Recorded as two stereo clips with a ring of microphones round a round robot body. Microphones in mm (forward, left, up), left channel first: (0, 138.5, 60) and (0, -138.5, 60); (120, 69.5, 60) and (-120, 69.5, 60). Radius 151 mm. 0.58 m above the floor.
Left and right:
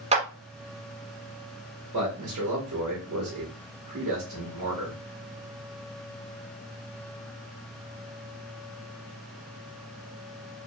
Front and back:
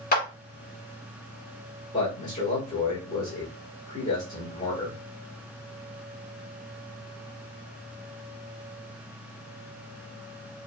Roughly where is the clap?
Ahead right.